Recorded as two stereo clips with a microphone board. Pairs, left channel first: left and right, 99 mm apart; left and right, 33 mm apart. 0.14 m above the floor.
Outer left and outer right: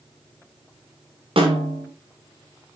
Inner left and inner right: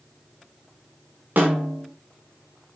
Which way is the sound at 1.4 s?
65° right (ahead or behind).